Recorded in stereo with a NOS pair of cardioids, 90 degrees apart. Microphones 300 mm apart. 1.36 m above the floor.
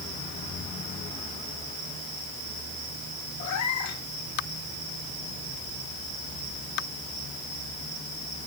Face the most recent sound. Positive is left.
turn(degrees=70)